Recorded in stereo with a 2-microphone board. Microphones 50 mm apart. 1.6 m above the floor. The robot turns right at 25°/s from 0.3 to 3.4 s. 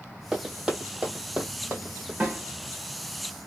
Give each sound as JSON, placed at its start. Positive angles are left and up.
{"t": 0.3, "sound": "running footsteps", "side_deg": -10, "distance_m": 2.0}
{"t": 2.2, "sound": "a snare drum", "side_deg": -25, "distance_m": 2.5}